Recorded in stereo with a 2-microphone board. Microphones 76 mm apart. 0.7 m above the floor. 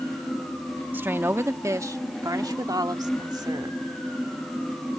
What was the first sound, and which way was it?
A woman speaking, 25° right (ahead or behind).